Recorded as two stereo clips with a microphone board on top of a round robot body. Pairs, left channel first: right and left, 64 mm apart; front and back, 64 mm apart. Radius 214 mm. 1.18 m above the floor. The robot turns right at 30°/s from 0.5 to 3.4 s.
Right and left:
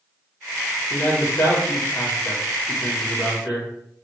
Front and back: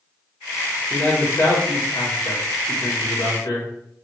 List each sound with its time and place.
0.9 s a man speaking: 65° right, 2.5 m; by 3.7 s 10° left, 2.5 m